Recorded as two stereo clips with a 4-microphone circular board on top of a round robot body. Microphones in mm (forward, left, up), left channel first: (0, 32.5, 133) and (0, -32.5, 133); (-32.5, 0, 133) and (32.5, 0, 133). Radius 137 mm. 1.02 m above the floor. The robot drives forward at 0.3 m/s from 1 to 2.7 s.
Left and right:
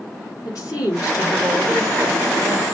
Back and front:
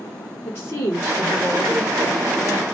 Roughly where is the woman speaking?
Behind left.